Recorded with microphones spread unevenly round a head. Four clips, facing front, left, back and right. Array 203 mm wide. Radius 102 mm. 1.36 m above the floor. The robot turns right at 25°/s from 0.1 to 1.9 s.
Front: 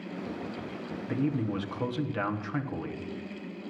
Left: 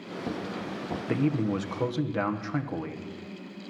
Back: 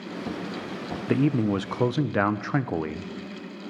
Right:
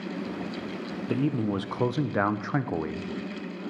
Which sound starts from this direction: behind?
A man speaking, at 1.1 s.